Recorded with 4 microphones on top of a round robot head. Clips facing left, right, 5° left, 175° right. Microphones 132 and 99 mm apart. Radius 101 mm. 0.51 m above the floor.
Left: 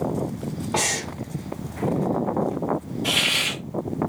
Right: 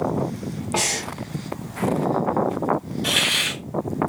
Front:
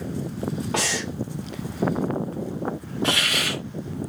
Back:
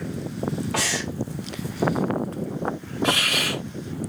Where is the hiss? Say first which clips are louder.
Right 1 dB, back 2 dB; 85° right, 1.5 m.